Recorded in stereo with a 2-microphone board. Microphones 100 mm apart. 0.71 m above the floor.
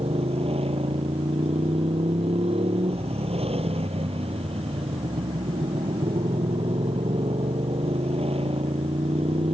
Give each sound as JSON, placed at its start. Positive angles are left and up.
{"t": 0.0, "sound": "a motorcycle", "side_deg": -75}